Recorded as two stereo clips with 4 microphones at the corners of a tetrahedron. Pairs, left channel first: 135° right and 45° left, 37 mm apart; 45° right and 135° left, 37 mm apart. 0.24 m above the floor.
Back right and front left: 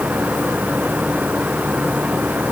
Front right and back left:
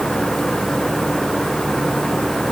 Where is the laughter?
No laughter in this recording.